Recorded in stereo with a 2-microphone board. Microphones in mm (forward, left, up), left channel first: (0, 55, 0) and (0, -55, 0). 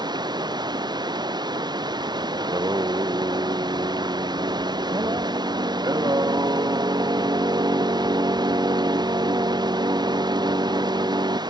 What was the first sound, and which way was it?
Running water, 45° right (ahead or behind).